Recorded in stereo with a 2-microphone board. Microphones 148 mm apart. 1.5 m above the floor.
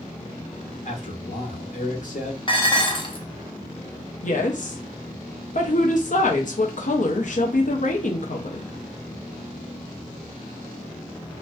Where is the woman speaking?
60° left (ahead or behind), 0.6 m.